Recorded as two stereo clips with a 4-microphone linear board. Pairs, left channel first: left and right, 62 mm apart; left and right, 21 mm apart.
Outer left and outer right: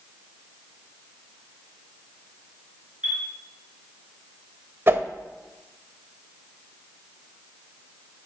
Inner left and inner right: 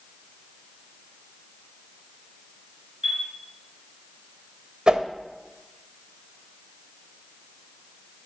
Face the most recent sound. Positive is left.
turn(degrees=-40)  # may be behind; listen again after turning